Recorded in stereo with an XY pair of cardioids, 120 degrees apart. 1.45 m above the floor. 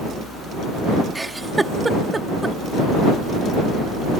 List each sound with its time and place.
1.1 s a giggle: 15° right